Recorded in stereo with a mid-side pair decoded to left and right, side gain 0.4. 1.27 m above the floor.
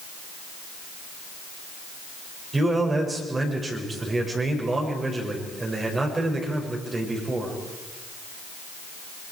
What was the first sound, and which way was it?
A man speaking, 30° right.